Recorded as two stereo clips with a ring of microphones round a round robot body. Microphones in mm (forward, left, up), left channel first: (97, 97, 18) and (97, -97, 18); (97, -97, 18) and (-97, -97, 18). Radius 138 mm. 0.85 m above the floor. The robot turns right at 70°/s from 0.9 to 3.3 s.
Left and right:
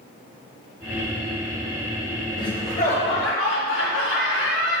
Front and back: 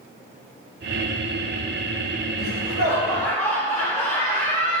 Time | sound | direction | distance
2.4 | laughter | 20° left | 2.5 m